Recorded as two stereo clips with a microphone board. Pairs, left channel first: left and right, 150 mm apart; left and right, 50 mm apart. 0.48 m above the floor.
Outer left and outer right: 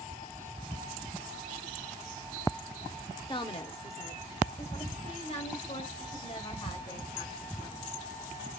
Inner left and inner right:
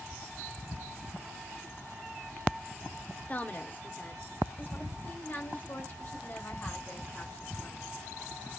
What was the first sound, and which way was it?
A woman speaking, 30° left (ahead or behind).